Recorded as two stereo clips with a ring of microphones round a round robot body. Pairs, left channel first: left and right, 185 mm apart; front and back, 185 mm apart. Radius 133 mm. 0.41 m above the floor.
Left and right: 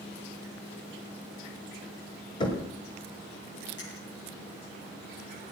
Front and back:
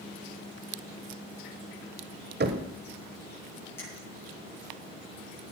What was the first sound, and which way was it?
Knocking, 155° left.